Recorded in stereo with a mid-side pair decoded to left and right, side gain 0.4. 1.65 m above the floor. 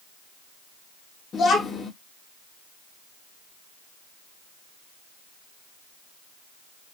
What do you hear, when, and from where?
1.3 s a child speaking: 55° left, 1.9 m